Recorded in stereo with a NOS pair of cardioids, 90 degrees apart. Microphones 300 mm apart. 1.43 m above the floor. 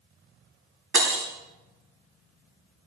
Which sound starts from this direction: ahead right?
Breaking glass, at 0.9 s.